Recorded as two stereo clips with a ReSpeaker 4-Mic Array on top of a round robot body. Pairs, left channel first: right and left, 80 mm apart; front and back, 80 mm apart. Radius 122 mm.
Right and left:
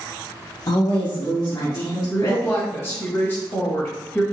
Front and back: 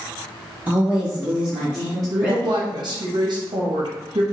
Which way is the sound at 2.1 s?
150° right.